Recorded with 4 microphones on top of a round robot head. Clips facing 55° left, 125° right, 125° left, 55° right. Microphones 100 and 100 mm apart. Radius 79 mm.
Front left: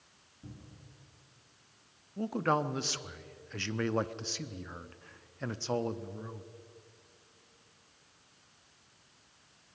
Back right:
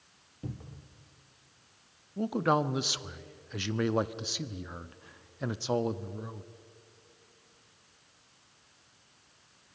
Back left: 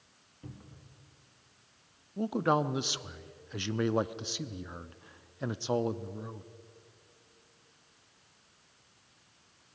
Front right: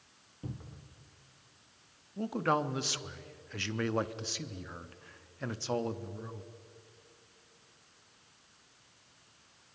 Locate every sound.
0.4 s a cupboard door: 125° right, 1.4 m
2.2 s a man speaking: 175° left, 0.7 m